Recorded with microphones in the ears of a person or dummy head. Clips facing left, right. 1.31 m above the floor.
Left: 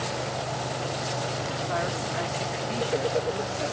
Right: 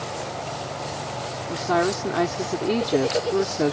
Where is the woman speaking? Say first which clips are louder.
Right 11 dB; 85° right.